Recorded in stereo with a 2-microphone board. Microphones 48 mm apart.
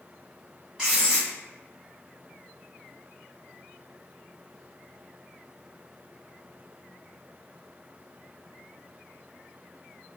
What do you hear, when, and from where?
0.8 s writing: 10° right (ahead or behind), 1.2 m